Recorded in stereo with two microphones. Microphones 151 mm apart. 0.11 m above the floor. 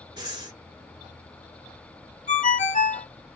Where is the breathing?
30° right (ahead or behind), 1.0 m.